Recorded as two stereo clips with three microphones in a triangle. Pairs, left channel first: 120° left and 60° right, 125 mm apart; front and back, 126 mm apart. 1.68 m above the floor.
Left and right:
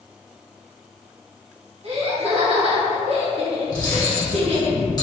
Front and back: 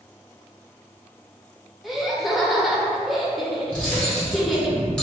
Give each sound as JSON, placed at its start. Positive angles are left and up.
{"t": 1.8, "sound": "laughter", "azimuth_deg": -90, "distance_m": 0.8}
{"t": 3.7, "sound": "cutlery clinking", "azimuth_deg": 80, "distance_m": 1.0}